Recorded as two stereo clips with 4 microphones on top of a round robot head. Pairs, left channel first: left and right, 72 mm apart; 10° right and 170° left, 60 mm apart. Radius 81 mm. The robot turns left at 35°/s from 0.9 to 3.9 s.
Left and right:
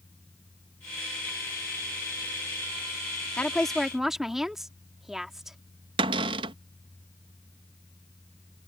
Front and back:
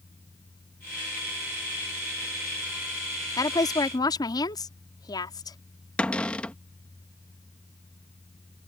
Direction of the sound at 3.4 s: 15° left.